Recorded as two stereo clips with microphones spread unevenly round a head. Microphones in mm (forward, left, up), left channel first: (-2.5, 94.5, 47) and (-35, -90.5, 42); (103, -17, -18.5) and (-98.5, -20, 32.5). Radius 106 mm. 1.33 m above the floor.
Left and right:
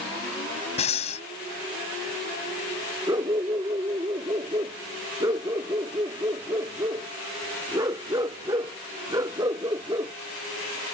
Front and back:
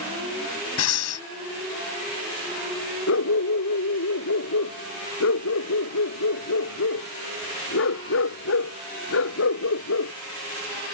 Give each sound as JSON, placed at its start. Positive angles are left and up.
{"t": 0.8, "sound": "breathing", "azimuth_deg": 20}
{"t": 3.1, "sound": "a dog barking", "azimuth_deg": -25}